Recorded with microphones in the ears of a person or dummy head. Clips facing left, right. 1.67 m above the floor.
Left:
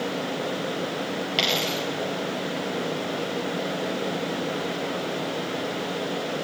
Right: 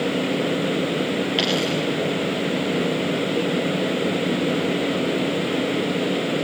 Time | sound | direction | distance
1.4 | a dropped coin | 10° right (ahead or behind) | 4 m